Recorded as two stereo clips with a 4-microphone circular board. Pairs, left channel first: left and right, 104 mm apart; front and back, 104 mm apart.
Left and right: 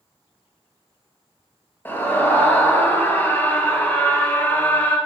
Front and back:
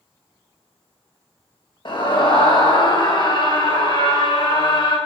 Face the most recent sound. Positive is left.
turn(degrees=25)